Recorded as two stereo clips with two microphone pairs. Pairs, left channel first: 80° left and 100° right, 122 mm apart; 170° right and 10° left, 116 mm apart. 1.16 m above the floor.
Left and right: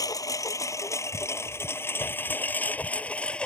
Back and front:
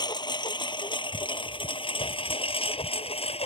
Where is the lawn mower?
140° left; by 3.5 s 160° left.